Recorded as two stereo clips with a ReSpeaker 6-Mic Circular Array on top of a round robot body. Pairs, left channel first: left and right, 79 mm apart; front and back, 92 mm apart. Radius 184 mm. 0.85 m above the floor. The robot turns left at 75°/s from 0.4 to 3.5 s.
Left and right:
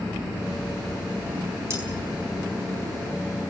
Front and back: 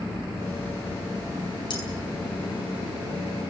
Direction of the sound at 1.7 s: 35° right.